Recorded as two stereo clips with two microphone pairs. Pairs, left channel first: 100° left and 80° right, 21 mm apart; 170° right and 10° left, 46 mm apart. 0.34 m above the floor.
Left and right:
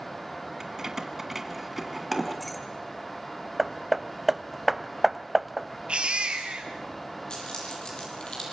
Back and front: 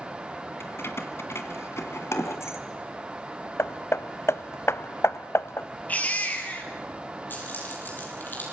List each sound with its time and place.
0.6 s keys jangling: 145° right, 1.8 m; by 2.6 s straight behind, 1.9 m
3.6 s hammering: 170° right, 0.6 m
5.9 s a baby crying: 115° right, 3 m
7.3 s keys jangling: 140° left, 7.5 m